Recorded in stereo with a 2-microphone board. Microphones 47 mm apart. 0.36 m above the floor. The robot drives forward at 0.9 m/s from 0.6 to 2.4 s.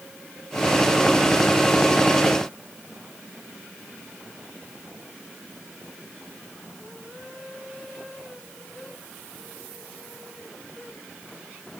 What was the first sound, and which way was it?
Only background noise.